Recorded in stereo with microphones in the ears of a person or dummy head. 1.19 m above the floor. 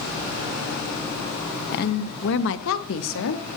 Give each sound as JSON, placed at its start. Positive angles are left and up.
{"t": 1.7, "sound": "a woman speaking", "side_deg": 50, "distance_m": 0.9}